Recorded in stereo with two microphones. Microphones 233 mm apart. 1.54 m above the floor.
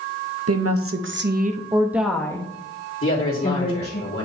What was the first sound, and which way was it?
A woman speaking, 75° right (ahead or behind).